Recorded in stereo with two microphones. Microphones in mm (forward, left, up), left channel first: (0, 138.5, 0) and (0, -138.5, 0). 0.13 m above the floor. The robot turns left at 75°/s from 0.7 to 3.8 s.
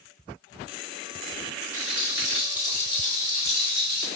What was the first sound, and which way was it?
A rattle, 110° right.